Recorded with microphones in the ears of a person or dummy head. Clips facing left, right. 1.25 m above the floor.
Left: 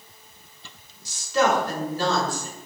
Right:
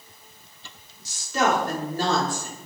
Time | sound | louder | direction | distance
1.1 | a woman speaking | left 2 dB | 45° right (ahead or behind) | 4 m